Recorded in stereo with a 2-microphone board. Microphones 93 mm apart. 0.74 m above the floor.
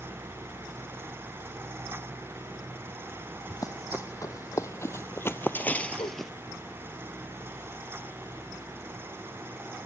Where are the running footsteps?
40° left (ahead or behind), 1.6 m; by 6.3 s centre (ahead or behind), 0.7 m.